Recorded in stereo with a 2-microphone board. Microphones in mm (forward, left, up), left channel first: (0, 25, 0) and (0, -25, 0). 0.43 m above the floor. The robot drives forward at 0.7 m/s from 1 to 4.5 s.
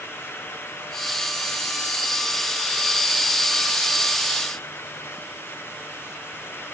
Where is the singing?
No singing in this recording.